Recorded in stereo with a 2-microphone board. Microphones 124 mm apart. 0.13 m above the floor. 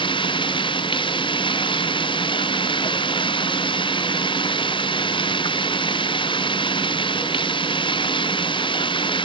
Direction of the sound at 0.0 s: 40° left (ahead or behind).